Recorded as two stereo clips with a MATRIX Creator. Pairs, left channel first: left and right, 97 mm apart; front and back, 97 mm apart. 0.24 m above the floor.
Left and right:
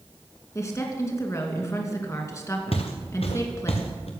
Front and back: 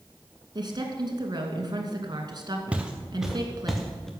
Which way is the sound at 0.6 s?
145° left.